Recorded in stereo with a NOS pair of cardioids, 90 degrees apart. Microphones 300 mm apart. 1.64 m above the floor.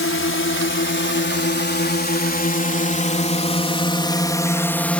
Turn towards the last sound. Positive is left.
turn(degrees=5)